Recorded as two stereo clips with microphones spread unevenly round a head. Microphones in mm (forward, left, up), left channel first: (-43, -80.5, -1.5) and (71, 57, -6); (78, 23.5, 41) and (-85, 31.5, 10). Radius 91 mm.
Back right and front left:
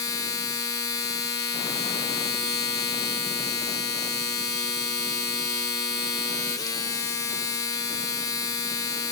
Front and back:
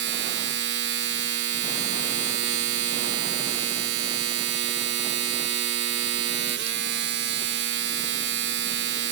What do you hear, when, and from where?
0.0 s a machine running: 160° left, 0.9 m